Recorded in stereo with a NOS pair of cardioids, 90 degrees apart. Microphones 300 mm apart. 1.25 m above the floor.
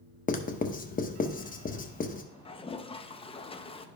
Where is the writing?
30° left, 0.8 m.